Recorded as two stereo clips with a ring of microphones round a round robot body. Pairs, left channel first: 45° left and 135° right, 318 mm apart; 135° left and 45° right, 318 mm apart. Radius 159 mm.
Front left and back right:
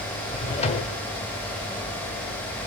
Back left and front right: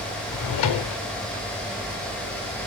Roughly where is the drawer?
Behind left.